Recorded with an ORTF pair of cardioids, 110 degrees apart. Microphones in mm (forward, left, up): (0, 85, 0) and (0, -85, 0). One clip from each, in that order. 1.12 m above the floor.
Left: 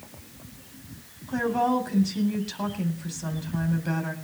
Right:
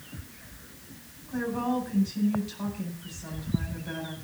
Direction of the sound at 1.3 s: 50° left.